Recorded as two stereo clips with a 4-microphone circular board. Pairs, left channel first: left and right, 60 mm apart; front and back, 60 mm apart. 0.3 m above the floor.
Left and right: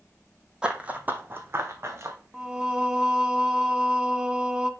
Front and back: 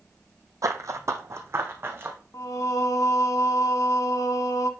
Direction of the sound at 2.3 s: 15° right.